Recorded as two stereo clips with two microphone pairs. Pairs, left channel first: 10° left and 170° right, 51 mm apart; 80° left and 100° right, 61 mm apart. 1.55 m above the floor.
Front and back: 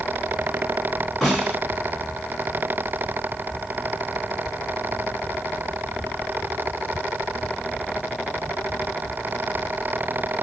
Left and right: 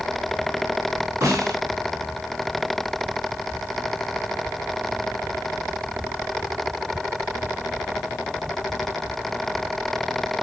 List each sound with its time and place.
1.2 s a snare drum: 75° right, 3 m